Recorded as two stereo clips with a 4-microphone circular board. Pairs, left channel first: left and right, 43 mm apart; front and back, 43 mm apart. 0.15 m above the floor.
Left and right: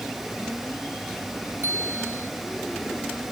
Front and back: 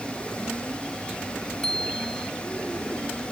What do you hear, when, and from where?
1.6 s a bicycle bell: 80° right